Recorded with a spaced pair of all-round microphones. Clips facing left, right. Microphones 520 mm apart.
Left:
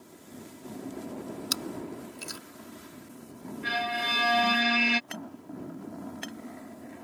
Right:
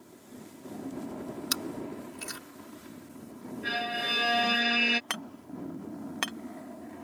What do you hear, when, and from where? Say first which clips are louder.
1.5 s chewing: even; 70° right (ahead or behind)
3.6 s a violin: left 2 dB; 25° left (ahead or behind)
5.1 s hammering: left 1 dB; 85° right